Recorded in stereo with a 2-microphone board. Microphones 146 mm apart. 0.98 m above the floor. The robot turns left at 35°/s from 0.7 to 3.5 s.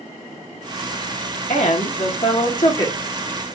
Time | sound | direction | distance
1.5 | a woman speaking | 75° left | 1.4 m